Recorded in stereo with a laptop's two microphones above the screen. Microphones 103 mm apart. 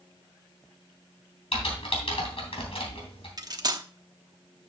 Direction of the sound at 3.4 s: 40° right (ahead or behind).